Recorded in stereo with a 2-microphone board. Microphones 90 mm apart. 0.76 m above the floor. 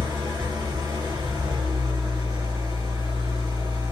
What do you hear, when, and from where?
0.0 s an engine running: 65° right (ahead or behind), 2 m